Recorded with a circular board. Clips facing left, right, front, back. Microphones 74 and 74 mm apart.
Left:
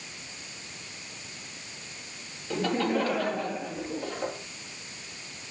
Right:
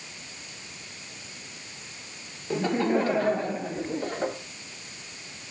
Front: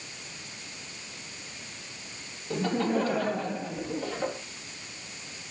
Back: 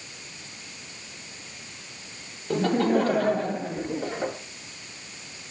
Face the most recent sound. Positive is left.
turn(degrees=-125)